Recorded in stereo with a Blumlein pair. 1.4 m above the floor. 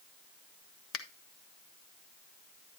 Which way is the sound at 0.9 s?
35° left.